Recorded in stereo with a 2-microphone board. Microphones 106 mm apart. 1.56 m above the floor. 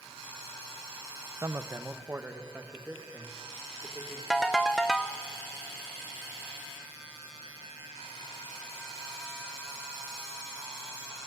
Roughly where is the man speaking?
Right.